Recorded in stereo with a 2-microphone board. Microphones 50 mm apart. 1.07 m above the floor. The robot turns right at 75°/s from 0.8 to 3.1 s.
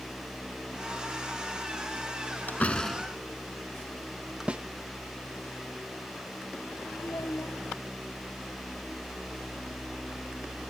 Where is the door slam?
40° left (ahead or behind); by 4.5 s 5° right (ahead or behind).